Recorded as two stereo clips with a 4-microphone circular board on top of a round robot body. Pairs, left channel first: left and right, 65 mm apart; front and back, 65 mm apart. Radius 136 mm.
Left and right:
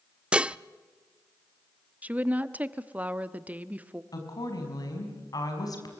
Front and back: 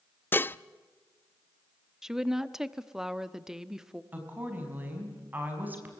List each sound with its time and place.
0.3 s dishes clattering: 30° right, 0.6 m
2.0 s a woman speaking: 110° right, 1.1 m
4.1 s a woman speaking: 115° left, 5.5 m